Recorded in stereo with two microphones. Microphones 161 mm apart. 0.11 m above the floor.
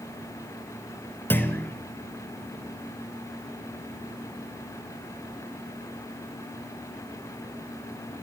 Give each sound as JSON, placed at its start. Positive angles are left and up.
{"t": 1.3, "sound": "a clunk", "side_deg": 10, "distance_m": 1.8}